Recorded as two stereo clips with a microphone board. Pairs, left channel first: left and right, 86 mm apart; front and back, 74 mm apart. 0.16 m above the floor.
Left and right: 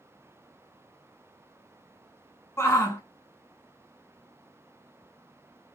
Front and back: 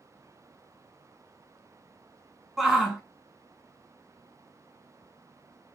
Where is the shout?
95° left, 1.2 m.